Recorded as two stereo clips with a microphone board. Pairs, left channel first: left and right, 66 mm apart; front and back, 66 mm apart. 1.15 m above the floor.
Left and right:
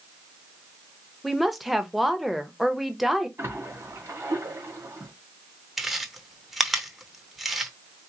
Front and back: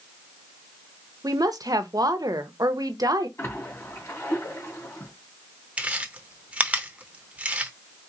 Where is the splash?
45° right, 2 m.